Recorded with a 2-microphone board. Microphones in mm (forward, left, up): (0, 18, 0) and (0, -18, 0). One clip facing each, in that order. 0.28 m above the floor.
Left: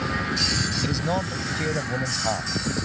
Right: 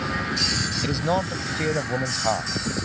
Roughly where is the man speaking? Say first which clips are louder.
Right 2 dB; centre.